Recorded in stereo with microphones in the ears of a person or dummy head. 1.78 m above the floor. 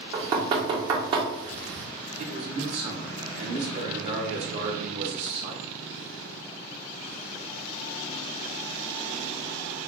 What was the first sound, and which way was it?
Knocking, 25° right (ahead or behind).